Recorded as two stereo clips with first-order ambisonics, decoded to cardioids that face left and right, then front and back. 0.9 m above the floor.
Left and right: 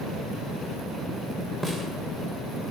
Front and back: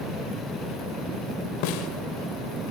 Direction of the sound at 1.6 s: 5° left.